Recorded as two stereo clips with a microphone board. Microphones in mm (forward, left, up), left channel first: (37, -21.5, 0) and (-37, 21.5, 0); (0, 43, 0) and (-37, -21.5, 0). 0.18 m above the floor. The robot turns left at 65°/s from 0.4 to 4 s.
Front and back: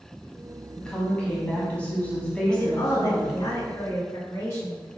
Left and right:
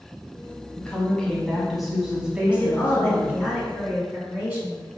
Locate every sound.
0.8 s a woman speaking: 35° left, 1.1 m; by 3.4 s 140° right, 1.1 m
2.5 s a woman speaking: 25° left, 1.8 m; by 5.0 s 70° right, 1.8 m